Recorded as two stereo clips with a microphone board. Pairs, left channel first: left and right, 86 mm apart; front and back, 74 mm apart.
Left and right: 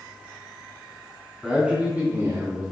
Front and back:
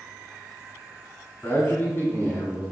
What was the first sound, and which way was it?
A man speaking, 10° right.